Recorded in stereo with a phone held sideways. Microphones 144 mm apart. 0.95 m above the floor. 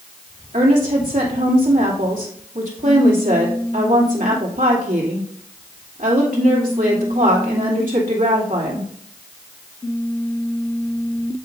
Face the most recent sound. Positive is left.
turn(degrees=-70)  # may be behind; listen again after turning